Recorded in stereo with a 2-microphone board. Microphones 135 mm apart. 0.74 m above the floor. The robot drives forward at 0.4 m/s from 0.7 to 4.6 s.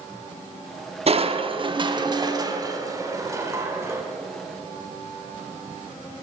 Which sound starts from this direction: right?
Crushing, at 1.1 s.